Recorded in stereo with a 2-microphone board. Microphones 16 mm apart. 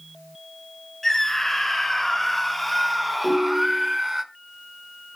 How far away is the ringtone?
About 6 m.